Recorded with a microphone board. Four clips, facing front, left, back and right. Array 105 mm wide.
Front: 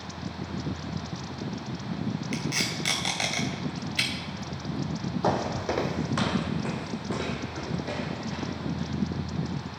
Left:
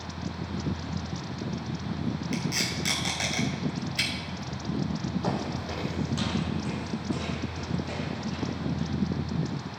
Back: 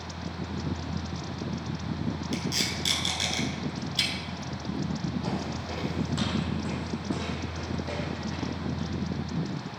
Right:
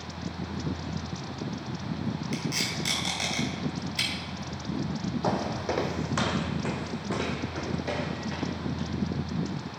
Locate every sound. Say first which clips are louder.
2.3 s tape being pulled: left 1 dB, front 1 dB; 10° left, 1.9 m
5.2 s footsteps: right 6 dB, front 6 dB; 15° right, 0.6 m; by 8.9 s 75° right, 2.5 m